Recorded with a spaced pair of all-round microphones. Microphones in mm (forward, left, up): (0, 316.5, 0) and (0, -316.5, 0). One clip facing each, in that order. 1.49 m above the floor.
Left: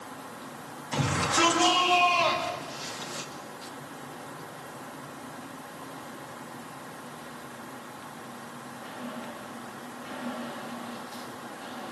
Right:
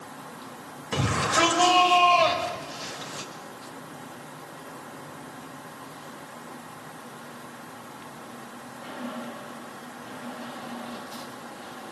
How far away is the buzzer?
I don't hear a buzzer.